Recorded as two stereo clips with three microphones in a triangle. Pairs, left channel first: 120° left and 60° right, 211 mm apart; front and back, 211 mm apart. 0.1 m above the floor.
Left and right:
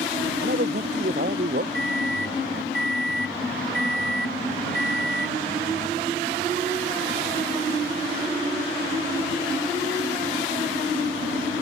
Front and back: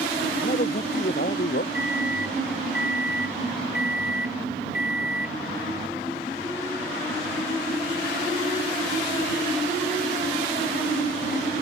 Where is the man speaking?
35° right; by 1.6 s 25° right.